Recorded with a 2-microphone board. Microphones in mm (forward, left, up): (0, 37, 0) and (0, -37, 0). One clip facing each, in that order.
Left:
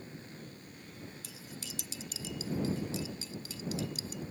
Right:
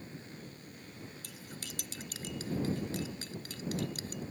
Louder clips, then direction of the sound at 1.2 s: Even; 55° right (ahead or behind).